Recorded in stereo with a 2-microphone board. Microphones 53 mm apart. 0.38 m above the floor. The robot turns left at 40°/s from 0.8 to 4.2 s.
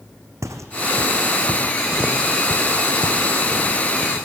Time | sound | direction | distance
0.4 | footsteps | 70° right (ahead or behind) | 1.2 m